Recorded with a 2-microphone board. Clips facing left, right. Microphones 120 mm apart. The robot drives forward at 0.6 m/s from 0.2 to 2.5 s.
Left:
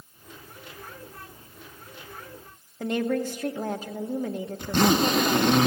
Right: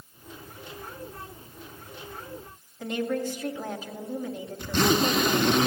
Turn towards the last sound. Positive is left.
turn(degrees=45)  # may be behind; listen again after turning